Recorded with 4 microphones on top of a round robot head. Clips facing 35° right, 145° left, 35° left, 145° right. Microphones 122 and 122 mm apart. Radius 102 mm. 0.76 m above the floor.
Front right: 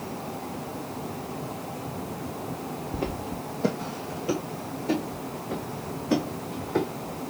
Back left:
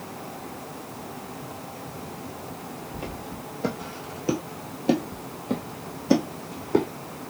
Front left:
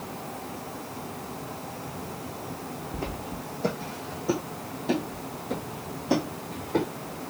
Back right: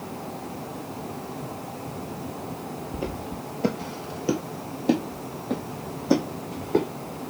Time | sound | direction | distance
2.9 | footsteps | 70° right | 1.1 m